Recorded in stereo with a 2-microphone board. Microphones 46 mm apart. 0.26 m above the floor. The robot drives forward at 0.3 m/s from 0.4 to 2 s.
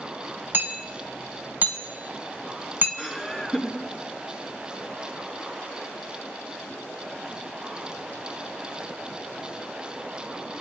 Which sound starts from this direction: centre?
Laughter, at 3.0 s.